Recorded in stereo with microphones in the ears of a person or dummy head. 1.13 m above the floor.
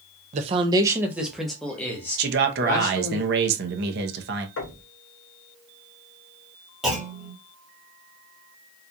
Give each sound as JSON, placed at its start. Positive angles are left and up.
{"t": 0.3, "sound": "a man speaking", "side_deg": -40, "distance_m": 0.6}
{"t": 2.2, "sound": "a man speaking", "side_deg": -50, "distance_m": 0.9}
{"t": 4.6, "sound": "knocking", "side_deg": 75, "distance_m": 1.5}
{"t": 6.8, "sound": "a clunk", "side_deg": 0, "distance_m": 1.3}